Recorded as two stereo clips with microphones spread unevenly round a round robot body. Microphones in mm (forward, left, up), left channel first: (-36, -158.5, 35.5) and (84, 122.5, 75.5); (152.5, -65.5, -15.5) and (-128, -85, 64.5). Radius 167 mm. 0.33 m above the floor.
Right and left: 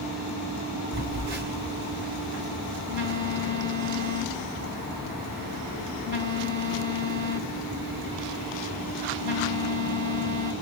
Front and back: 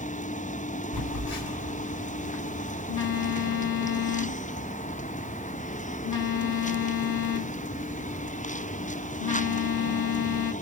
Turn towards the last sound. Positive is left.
turn(degrees=40)